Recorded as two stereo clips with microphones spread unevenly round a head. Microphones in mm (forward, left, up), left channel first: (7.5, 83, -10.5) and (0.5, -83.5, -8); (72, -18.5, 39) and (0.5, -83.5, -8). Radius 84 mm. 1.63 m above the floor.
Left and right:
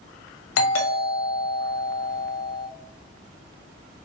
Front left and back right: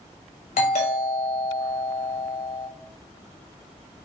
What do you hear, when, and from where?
0.6 s a doorbell: 95° left, 0.6 m